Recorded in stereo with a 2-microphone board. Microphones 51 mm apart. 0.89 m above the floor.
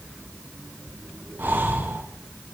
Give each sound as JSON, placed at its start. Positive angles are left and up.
{"t": 1.4, "sound": "breathing", "side_deg": -40, "distance_m": 0.7}